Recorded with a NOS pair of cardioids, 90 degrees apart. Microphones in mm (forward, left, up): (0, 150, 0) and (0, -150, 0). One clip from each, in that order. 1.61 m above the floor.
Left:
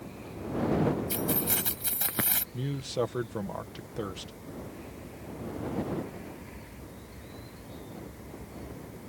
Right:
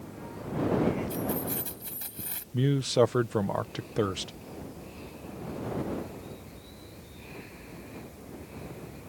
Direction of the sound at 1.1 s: 65° left.